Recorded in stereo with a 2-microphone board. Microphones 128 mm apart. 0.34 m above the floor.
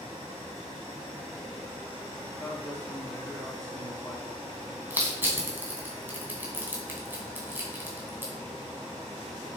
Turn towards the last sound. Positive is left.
turn(degrees=-15)  # may be behind; listen again after turning